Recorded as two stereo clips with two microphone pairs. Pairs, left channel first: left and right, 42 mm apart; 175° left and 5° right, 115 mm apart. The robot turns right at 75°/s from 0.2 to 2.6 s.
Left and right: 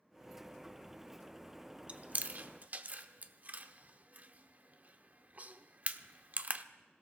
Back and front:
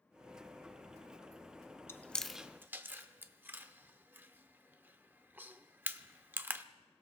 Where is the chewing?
125° right, 0.7 m; by 6.7 s 70° right, 0.7 m.